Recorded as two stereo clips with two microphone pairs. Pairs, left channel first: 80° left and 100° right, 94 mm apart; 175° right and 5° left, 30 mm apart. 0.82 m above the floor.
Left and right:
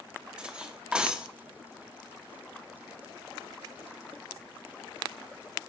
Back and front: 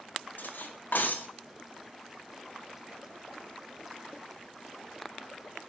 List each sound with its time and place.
0.4 s cutlery clinking: straight behind, 0.6 m